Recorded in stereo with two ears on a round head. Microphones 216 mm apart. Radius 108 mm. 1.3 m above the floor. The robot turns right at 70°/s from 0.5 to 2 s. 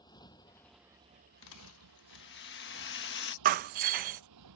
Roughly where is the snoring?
I don't hear snoring.